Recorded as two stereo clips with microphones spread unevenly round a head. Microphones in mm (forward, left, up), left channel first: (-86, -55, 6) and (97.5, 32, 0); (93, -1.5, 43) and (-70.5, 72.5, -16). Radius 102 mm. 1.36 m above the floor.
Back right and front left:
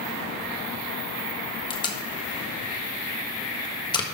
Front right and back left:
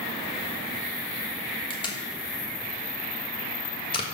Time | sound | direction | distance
1.7 | tape being pulled | 85° right | 1.3 m